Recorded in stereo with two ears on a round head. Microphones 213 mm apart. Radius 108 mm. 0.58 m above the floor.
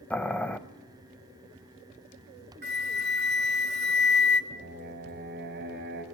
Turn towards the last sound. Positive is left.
turn(degrees=-45)  # may be behind; listen again after turning